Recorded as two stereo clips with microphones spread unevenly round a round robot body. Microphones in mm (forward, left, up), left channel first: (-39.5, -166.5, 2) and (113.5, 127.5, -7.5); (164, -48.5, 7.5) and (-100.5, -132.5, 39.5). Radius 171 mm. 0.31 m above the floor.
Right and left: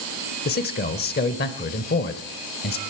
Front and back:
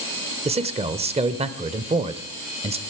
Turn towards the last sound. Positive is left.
turn(degrees=-105)